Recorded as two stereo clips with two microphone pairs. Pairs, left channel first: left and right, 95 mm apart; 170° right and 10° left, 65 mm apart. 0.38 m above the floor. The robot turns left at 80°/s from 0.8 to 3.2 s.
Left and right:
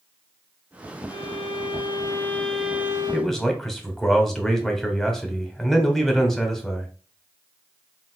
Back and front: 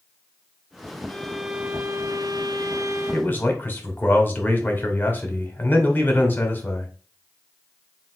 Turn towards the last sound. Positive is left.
turn(degrees=165)